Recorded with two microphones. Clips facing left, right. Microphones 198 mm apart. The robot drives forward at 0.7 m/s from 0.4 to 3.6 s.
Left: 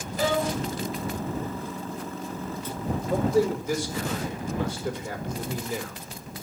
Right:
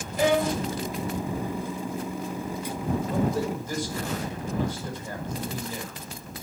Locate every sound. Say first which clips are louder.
0.2 s a violin: right 3 dB; 15° right (ahead or behind), 2.5 m
3.1 s a man speaking: left 7 dB; 85° left, 4 m